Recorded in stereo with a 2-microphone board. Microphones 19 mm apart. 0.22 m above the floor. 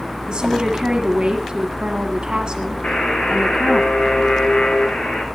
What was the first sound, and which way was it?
A woman speaking, 45° right (ahead or behind).